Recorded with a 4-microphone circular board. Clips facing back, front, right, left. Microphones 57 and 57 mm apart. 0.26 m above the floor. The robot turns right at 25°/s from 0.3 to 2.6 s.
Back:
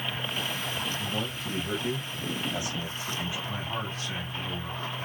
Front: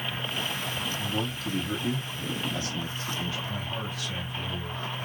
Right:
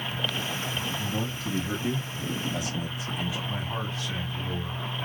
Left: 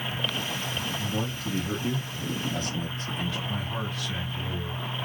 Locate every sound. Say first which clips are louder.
0.9 s a man speaking: front 1 dB, even; 165° left, 1.3 m; by 3.4 s 150° right, 1.3 m
3.5 s a man speaking: back 1 dB, even; 135° right, 2.5 m